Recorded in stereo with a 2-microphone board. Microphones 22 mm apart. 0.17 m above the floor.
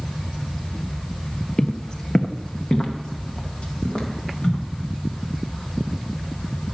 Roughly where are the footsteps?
Left.